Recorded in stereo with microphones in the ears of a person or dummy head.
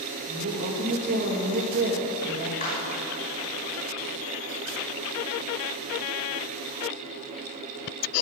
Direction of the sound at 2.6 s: 40° left (ahead or behind).